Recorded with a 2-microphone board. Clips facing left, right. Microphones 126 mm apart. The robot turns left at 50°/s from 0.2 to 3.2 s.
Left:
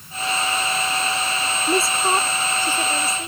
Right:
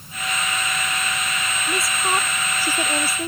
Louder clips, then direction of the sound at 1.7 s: Left 4 dB; 40° left.